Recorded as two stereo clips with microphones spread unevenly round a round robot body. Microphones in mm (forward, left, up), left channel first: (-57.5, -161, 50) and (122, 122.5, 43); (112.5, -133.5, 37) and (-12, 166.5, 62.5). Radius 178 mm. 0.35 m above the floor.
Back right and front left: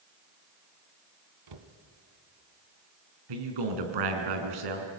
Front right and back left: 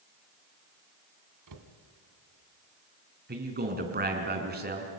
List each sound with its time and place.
1.5 s a cupboard door: 80° left, 2 m
3.3 s a man speaking: 50° left, 4 m